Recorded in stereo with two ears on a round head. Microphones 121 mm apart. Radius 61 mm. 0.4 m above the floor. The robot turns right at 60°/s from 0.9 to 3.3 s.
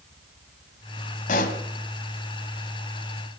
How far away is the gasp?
I don't hear a gasp.